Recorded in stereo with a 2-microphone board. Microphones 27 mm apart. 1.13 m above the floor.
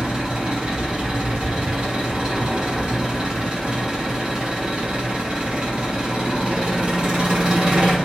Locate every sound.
0.0 s an engine running: 40° right (ahead or behind), 1.5 m